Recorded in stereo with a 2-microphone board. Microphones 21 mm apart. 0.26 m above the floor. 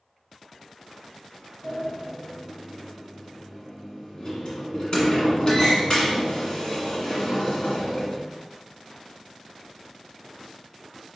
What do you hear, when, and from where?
1.6 s a sliding door: 40° left (ahead or behind), 1.1 m